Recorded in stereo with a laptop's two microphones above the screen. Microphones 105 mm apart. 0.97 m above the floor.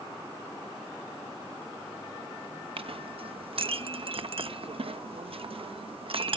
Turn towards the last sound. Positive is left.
turn(degrees=-65)  # may be behind; listen again after turning